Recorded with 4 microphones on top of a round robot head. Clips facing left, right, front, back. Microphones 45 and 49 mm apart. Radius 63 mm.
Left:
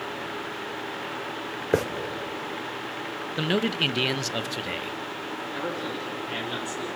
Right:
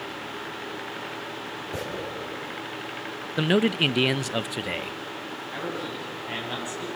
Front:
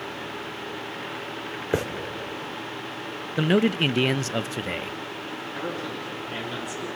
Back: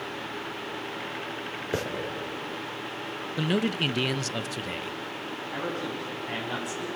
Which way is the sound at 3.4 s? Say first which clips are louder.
Right 3 dB, front 6 dB; 25° right.